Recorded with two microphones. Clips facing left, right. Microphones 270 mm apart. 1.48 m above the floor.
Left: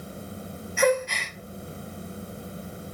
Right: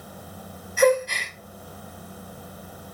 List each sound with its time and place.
0.8 s a gasp: 40° right (ahead or behind), 0.8 m